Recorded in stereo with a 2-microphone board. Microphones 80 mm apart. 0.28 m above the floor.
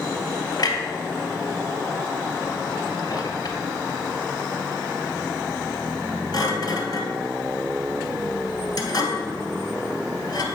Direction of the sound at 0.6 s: 50° left (ahead or behind).